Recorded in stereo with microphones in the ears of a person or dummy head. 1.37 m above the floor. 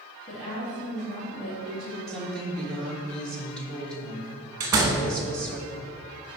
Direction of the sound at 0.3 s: 40° left (ahead or behind).